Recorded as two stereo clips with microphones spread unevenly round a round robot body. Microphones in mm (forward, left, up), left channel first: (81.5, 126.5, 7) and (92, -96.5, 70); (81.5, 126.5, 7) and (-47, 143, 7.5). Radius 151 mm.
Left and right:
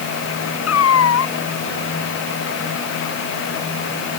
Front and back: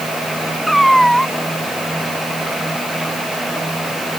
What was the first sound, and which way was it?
A cat meowing, 80° left.